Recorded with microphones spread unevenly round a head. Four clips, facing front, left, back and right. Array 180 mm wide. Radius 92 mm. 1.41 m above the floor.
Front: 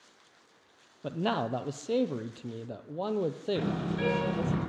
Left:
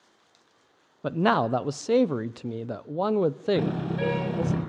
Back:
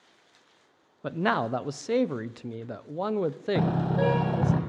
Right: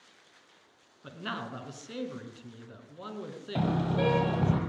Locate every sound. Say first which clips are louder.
1.0 s a man speaking: left 16 dB, back 4 dB; 90° left, 0.7 m
3.5 s a car horn: left 2 dB, back 5 dB; 160° right, 5 m